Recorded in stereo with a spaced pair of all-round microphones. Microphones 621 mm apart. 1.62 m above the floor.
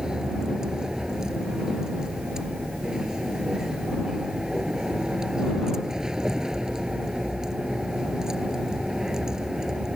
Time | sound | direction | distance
0.0 | a vehicle | centre (ahead or behind) | ?